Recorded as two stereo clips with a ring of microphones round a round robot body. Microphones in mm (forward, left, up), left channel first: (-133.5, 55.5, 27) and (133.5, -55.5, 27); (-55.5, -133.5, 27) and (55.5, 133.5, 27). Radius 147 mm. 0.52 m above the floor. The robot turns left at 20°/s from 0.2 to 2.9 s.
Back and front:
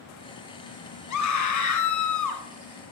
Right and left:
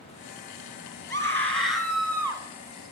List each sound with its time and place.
1.1 s a scream: 170° left, 2.5 m; by 2.4 s 145° left, 2.5 m